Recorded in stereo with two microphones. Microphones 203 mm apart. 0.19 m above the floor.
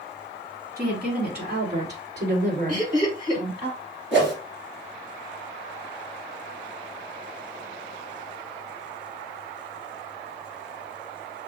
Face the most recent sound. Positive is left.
turn(degrees=-65)  # may be behind; listen again after turning